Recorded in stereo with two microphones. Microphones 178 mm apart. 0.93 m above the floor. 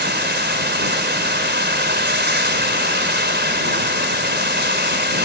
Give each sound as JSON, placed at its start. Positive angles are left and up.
{"t": 0.0, "sound": "running water", "side_deg": -75}